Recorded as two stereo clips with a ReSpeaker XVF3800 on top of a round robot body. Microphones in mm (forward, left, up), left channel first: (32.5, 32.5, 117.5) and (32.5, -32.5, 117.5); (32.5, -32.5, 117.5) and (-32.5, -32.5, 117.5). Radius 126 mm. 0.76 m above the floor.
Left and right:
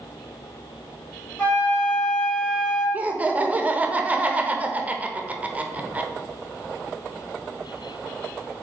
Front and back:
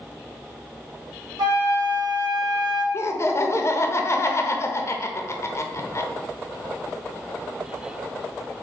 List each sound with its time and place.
1.4 s a flute: 165° left, 1.1 m
2.9 s laughter: 30° right, 0.8 m